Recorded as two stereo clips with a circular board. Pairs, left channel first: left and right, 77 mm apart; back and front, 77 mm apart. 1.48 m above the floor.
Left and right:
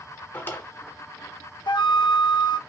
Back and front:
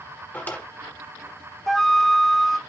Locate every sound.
0.3 s a drawer: 135° left, 1.4 m
1.7 s a flute: 95° left, 0.6 m